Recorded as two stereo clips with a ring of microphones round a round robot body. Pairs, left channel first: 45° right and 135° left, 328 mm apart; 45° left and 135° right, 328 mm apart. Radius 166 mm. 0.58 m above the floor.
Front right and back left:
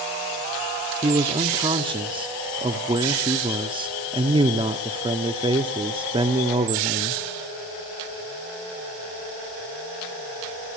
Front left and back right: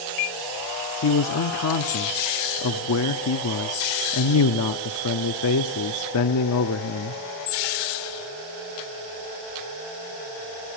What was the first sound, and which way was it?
A man speaking, 65° left.